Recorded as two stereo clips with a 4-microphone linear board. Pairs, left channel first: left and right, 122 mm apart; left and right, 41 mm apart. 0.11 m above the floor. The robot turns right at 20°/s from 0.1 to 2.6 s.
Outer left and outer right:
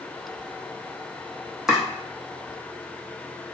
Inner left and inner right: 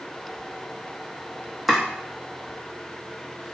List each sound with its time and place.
1.7 s chopping: 5° right (ahead or behind), 0.8 m